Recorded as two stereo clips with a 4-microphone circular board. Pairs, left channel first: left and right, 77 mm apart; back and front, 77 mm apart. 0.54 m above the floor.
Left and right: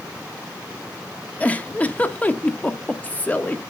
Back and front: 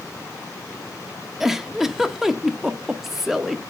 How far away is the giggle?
About 0.7 m.